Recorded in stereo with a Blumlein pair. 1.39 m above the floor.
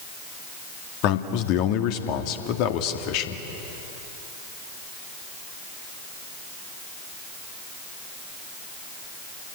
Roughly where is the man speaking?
Ahead left.